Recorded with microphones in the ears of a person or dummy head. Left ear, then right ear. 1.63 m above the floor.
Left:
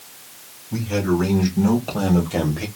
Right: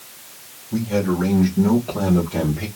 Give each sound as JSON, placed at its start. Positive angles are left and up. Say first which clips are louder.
{"t": 0.7, "sound": "a man speaking", "louder": "even", "side_deg": 70, "distance_m": 2.5}